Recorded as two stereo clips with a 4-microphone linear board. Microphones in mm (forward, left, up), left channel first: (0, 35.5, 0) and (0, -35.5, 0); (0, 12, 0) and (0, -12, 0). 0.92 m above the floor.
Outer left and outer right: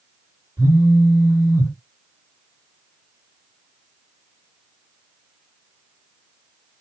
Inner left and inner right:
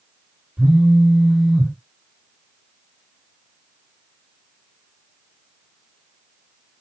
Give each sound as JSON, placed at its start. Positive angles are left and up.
{"t": 0.6, "sound": "a phone buzzing", "side_deg": -45, "distance_m": 1.9}